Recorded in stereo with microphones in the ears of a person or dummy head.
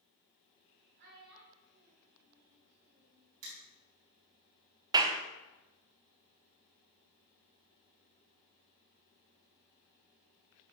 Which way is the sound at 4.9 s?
20° right (ahead or behind).